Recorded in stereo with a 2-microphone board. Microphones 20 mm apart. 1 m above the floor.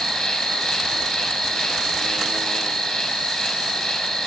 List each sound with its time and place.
0.0 s an insect: 35° left (ahead or behind), 4 m